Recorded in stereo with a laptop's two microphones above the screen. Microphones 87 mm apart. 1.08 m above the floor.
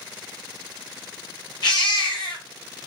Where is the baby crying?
60° left (ahead or behind), 0.8 m.